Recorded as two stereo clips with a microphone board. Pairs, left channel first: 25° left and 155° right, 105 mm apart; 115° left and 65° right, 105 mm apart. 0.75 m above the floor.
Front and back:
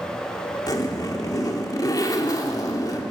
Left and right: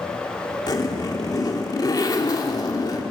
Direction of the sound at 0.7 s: 70° left.